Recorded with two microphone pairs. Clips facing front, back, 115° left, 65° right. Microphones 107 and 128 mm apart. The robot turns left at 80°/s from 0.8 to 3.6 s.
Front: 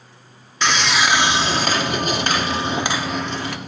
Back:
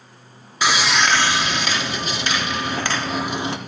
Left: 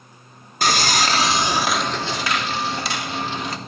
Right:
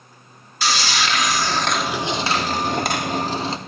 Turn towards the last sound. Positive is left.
turn(degrees=-125)